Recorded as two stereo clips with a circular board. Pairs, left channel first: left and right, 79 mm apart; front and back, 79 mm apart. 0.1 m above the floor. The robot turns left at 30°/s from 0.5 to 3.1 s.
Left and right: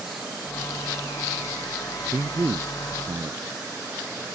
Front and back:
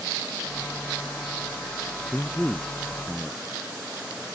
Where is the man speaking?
60° right; by 3.5 s 90° right.